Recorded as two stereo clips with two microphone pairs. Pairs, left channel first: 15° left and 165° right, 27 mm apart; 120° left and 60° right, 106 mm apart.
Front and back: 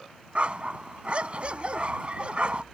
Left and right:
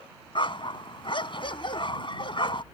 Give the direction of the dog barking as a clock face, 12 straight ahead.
7 o'clock.